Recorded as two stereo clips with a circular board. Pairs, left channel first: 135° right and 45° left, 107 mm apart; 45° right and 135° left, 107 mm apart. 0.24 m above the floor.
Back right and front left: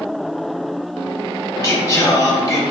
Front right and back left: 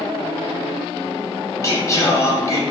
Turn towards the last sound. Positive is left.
turn(degrees=-90)